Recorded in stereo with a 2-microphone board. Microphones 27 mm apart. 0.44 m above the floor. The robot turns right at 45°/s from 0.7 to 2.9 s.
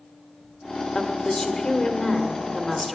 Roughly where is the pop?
I don't hear a pop.